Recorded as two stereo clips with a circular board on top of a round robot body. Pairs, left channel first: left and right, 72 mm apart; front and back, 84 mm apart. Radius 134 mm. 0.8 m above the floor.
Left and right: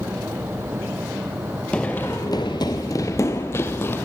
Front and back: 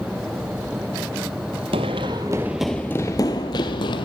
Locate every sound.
1.7 s running footsteps: 170° left, 1.0 m; by 4.0 s 30° left, 1.3 m